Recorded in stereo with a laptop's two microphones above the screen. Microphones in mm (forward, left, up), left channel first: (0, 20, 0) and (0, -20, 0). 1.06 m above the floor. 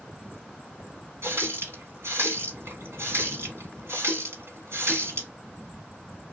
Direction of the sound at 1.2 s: 80° right.